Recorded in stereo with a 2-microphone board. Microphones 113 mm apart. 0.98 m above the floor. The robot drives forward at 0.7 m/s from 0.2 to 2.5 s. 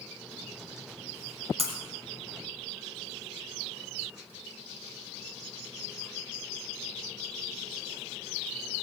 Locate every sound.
1.6 s breaking glass: 60° right (ahead or behind), 3 m; by 1.7 s 65° right (ahead or behind), 3 m